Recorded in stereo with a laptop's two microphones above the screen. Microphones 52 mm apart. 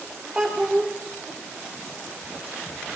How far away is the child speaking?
About 2.0 m.